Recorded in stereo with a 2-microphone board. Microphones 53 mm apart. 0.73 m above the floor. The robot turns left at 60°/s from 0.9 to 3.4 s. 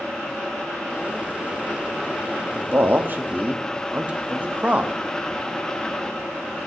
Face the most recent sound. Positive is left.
turn(degrees=-25)  # may be behind; listen again after turning